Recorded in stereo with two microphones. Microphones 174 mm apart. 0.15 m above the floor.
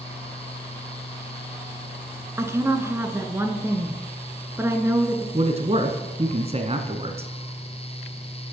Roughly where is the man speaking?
Right.